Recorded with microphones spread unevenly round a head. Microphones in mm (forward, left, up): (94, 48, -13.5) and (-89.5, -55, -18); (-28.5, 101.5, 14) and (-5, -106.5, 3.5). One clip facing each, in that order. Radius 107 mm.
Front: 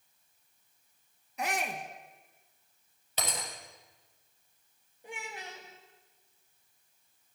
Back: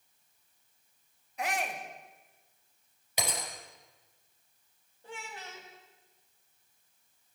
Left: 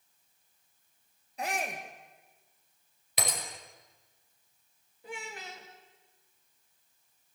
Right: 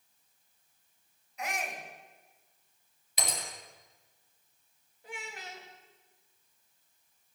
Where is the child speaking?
105° left, 3 m.